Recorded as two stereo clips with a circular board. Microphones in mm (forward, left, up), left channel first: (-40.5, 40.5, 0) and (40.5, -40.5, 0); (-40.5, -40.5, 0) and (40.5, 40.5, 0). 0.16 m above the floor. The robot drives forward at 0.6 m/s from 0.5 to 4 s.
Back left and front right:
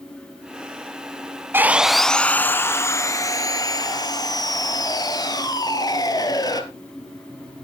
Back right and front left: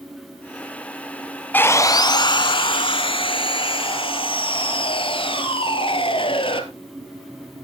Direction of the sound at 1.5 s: 85° right.